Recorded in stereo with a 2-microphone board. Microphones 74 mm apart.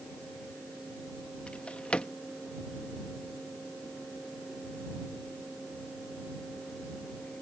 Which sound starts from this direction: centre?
A drawer, at 1.5 s.